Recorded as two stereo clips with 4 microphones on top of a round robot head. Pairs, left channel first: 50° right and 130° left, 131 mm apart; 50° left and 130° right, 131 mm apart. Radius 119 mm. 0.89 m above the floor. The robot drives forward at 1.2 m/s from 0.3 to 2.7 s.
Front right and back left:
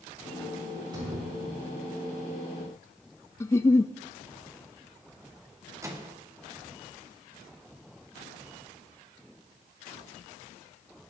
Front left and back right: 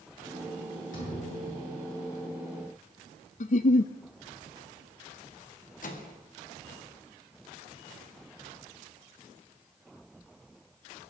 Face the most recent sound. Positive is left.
turn(degrees=60)